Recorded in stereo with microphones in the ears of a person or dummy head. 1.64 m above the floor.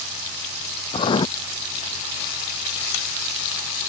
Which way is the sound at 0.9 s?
25° left (ahead or behind).